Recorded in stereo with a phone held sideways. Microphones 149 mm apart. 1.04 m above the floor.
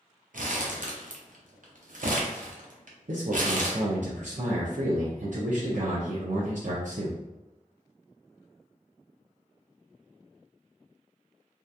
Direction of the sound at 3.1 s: 60° right (ahead or behind).